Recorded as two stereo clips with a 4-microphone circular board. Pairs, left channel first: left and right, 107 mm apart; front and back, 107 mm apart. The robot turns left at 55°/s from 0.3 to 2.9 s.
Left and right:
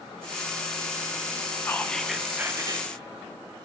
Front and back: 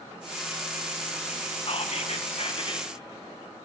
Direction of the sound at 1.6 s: 25° left.